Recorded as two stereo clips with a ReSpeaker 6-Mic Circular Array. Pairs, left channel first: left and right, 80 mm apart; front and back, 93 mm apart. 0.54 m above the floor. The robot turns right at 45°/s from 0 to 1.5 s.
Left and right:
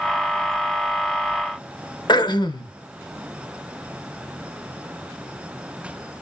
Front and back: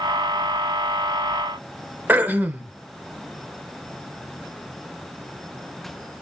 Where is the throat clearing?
110° left, 0.5 m.